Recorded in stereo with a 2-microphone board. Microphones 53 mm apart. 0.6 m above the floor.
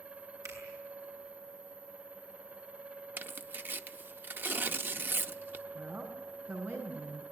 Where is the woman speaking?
50° right (ahead or behind), 6 m.